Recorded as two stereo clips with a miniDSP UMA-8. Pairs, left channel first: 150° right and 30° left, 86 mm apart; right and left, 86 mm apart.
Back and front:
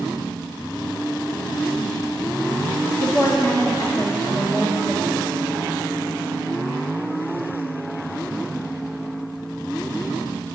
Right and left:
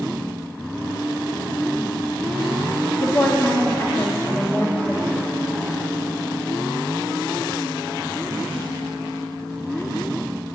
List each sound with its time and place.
3.0 s a woman speaking: 145° right, 1.8 m